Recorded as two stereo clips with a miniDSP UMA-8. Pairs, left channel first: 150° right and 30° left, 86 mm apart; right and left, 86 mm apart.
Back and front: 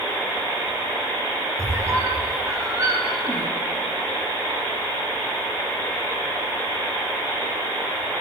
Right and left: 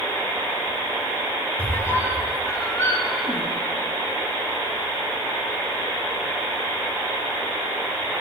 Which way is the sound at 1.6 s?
25° right.